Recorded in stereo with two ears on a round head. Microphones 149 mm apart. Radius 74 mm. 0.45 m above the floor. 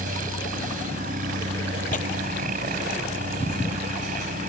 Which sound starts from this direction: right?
A helicopter, at 0.0 s.